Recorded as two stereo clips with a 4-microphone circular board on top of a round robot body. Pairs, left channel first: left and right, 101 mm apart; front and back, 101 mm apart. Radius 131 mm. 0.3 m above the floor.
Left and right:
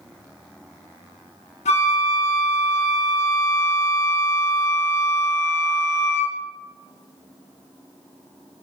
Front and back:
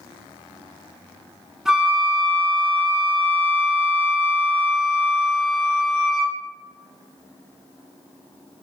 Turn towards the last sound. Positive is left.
turn(degrees=95)